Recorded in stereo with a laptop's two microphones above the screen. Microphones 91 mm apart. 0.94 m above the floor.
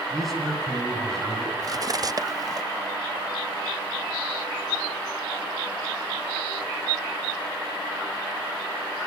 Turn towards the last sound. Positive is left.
turn(degrees=-45)  # may be behind; listen again after turning